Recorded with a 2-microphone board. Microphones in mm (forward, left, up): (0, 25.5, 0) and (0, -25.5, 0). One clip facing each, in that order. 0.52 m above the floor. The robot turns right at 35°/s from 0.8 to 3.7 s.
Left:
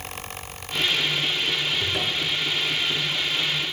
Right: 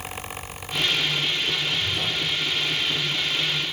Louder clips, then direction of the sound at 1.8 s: Left 1 dB; 65° left (ahead or behind).